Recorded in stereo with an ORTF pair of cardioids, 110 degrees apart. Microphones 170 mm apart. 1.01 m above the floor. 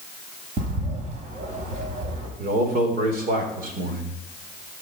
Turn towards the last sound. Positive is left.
turn(degrees=-60)